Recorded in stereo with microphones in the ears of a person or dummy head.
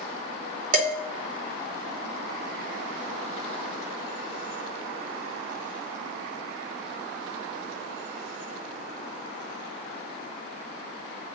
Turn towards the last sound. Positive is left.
turn(degrees=-50)  # may be behind; listen again after turning